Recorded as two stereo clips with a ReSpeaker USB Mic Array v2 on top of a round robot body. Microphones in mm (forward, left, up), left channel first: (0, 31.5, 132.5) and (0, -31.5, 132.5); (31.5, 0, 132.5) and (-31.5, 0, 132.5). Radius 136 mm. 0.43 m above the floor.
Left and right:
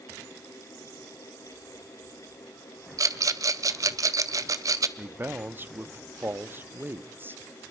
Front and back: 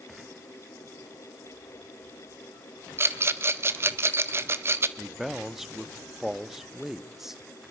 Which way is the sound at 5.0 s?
100° right.